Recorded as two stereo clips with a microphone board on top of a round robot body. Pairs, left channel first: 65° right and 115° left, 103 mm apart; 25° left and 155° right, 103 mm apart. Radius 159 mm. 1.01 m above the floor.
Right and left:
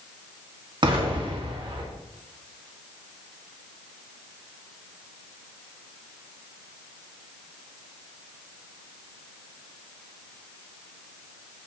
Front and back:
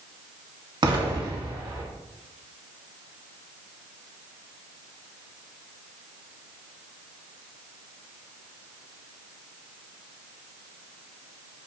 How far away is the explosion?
About 1.8 m.